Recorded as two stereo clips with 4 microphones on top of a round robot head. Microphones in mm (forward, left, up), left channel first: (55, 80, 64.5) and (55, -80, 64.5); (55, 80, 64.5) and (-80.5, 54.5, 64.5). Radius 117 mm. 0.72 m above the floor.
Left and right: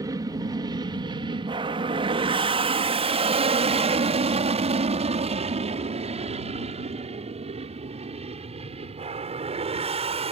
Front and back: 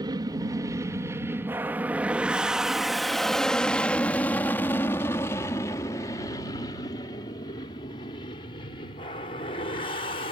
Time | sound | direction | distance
0.0 | an aircraft | 140° right | ?